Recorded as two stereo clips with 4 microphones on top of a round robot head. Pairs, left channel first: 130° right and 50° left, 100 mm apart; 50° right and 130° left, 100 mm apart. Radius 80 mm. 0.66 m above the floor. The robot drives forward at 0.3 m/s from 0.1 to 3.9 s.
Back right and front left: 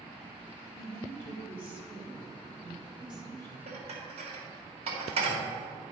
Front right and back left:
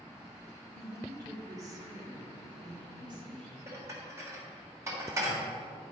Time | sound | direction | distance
0.7 | a woman speaking | 70° left | 2 m
3.7 | dishes clattering | 65° left | 1.6 m